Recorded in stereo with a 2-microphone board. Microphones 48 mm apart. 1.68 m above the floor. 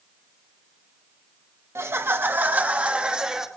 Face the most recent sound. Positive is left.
turn(degrees=-15)  # may be behind; listen again after turning